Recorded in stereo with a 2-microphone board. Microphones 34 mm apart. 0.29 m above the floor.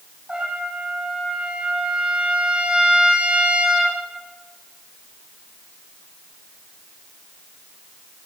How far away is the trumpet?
About 9 m.